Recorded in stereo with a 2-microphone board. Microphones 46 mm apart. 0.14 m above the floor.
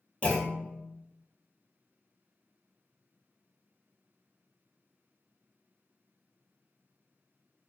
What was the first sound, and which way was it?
A clunk, 30° left (ahead or behind).